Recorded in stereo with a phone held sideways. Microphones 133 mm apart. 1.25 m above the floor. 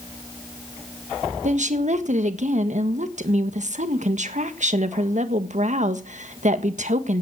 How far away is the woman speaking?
About 1.5 m.